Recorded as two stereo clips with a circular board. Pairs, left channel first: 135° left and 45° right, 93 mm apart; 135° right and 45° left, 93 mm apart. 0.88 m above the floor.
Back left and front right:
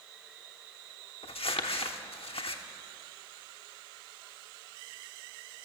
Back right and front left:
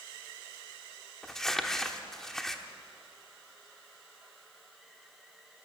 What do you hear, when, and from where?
1.2 s crumpling: 140° left, 1.0 m